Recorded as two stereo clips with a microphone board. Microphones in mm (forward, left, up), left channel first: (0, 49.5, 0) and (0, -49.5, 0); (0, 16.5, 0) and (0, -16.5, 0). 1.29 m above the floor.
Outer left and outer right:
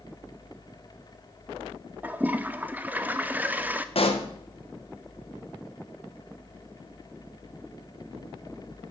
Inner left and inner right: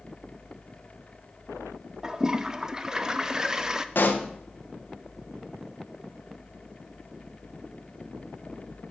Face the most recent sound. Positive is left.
turn(degrees=70)  # may be behind; listen again after turning